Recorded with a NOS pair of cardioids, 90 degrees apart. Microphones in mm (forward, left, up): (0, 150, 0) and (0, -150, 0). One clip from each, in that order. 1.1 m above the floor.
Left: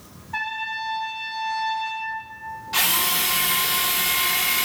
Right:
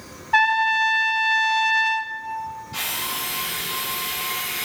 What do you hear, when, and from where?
0.3 s a trumpet: 55° right, 0.9 m
2.7 s a drill: 60° left, 1.6 m